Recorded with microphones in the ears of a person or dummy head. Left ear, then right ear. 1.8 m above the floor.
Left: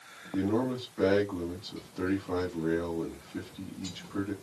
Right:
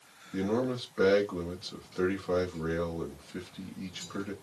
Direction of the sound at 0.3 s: 65° right (ahead or behind).